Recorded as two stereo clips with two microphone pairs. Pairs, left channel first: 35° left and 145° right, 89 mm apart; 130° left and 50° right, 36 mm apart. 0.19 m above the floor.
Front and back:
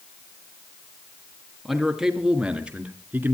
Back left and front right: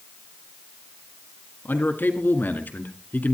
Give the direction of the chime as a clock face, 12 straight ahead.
No chime in this recording.